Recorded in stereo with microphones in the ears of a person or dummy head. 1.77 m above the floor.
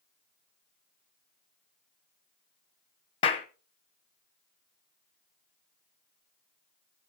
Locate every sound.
3.2 s a clap: 35° left (ahead or behind), 0.9 m